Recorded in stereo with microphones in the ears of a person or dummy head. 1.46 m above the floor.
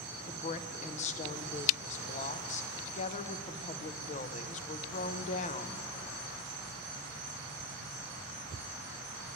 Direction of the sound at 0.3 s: 40° left (ahead or behind).